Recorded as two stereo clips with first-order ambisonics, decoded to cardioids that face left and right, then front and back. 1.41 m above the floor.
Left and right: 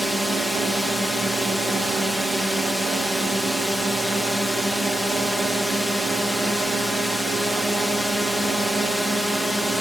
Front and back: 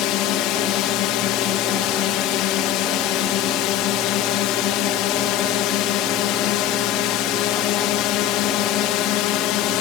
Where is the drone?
Straight ahead.